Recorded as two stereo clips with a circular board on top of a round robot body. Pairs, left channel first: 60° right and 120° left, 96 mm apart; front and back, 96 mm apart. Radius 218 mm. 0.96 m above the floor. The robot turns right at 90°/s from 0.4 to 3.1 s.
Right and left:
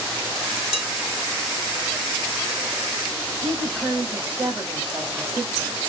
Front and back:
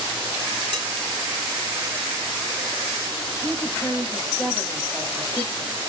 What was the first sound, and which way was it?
Dishes clattering, 30° right.